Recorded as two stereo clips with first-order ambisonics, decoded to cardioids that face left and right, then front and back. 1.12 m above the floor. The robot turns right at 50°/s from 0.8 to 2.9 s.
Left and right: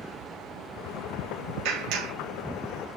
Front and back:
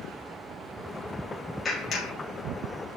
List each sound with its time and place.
1.6 s a clap: 75° right, 5 m; by 2.1 s 50° right, 5 m